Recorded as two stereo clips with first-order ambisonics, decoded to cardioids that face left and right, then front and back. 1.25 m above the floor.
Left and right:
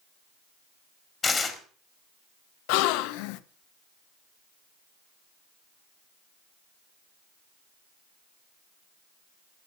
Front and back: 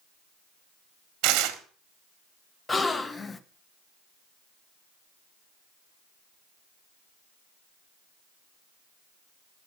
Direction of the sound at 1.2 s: 160° left.